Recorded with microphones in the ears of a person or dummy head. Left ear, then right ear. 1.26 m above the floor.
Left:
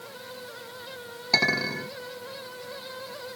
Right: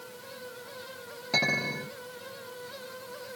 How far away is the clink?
About 1.2 m.